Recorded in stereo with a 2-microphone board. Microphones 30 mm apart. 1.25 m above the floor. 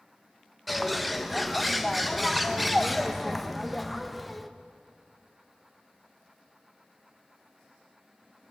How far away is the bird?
About 0.5 m.